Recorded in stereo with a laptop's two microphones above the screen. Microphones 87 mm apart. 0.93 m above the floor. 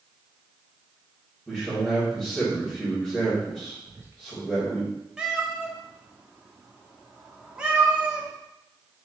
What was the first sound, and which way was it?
A man speaking, 5° left (ahead or behind).